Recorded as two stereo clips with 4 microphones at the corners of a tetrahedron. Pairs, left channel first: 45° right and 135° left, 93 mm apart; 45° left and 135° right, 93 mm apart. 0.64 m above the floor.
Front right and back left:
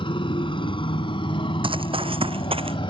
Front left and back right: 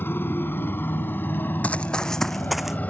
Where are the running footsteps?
120° left; by 2.8 s 140° left.